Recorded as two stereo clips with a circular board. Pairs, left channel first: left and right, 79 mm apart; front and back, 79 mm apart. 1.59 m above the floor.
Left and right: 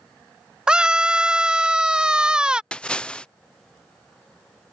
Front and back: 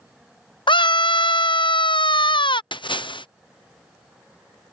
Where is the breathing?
I don't hear breathing.